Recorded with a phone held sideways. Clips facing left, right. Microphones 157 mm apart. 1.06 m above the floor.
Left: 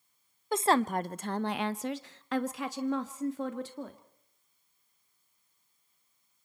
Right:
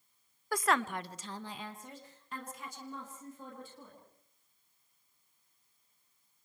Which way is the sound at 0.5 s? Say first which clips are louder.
Left 5 dB; 20° left (ahead or behind).